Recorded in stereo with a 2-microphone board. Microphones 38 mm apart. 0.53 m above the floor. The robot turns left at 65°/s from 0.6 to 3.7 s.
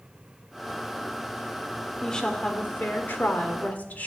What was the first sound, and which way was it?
A woman speaking, 165° left.